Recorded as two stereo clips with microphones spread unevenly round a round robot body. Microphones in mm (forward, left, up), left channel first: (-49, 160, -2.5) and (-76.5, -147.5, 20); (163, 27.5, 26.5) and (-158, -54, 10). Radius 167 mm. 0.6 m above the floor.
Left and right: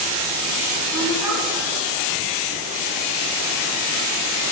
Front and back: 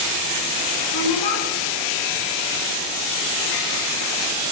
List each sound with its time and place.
0.9 s a woman speaking: 10° right, 6 m